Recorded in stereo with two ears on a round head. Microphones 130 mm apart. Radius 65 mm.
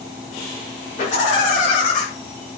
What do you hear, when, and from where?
1.0 s laughter: 50° left (ahead or behind), 8 m; by 2.0 s 60° left (ahead or behind), 8 m